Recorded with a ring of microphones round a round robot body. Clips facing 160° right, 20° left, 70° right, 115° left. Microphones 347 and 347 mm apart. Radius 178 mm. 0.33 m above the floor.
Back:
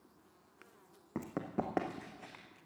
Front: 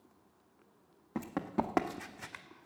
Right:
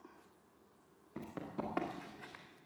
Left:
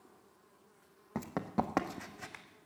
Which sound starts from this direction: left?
Running footsteps, at 1.1 s.